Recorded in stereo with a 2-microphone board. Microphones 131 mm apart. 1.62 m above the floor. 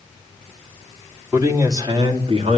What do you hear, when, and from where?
1.3 s a man speaking: 20° right (ahead or behind), 3.5 m; by 2.6 s 50° right (ahead or behind), 2.5 m